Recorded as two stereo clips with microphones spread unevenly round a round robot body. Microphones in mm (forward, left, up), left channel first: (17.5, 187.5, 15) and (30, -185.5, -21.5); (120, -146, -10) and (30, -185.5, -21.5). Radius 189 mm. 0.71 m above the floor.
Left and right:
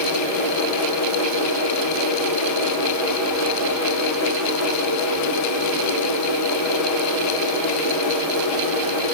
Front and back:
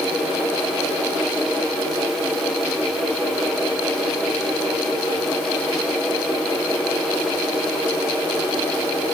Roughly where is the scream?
I don't hear a scream.